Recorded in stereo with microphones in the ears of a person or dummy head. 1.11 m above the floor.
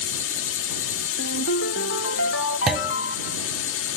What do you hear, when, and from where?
0.0 s a drone: 70° left (ahead or behind)
1.2 s a ringtone: 70° left (ahead or behind)
2.7 s a clunk: 5° right (ahead or behind)